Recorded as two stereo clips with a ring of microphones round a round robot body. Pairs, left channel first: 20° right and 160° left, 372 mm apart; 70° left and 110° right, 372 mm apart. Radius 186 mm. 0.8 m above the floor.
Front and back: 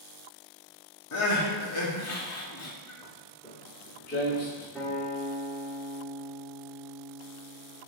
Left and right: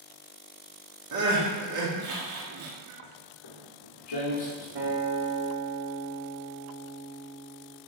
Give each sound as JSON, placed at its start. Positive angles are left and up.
{"t": 1.1, "sound": "crying", "azimuth_deg": -70, "distance_m": 1.7}
{"t": 3.0, "sound": "footsteps", "azimuth_deg": 60, "distance_m": 2.5}
{"t": 4.8, "sound": "a guitar", "azimuth_deg": -110, "distance_m": 2.5}